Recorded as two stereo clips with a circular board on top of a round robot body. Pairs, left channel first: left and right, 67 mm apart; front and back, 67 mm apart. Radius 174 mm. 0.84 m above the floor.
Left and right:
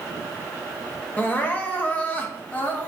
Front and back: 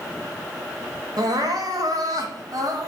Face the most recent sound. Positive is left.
turn(degrees=155)